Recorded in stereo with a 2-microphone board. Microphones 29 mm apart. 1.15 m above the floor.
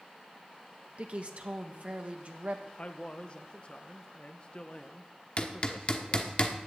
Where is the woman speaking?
45° right (ahead or behind), 1.5 m.